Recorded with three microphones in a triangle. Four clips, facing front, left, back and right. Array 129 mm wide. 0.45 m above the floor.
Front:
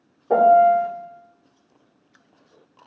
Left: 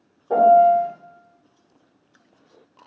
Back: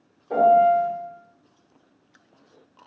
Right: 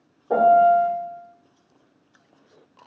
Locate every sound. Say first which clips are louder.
0.3 s a piano: left 2 dB, front 2 dB; 5° right, 1.6 m